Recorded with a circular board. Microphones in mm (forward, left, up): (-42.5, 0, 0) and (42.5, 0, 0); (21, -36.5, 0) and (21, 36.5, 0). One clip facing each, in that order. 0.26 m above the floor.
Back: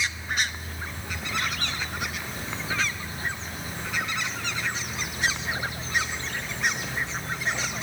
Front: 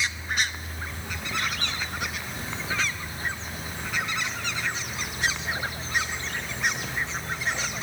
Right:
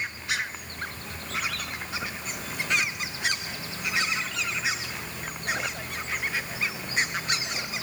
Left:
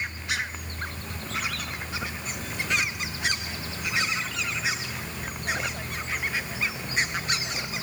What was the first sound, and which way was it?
Only background noise.